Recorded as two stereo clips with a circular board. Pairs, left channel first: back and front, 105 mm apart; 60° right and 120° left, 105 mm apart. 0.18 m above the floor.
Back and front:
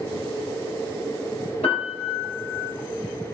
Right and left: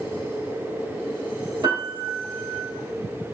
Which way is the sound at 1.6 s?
165° left.